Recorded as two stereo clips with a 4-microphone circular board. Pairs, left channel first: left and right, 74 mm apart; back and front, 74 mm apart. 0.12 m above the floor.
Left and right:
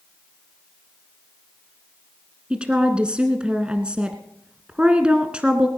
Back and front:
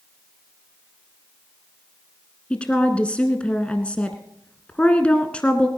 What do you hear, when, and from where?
2.5 s a woman speaking: 135° right, 1.1 m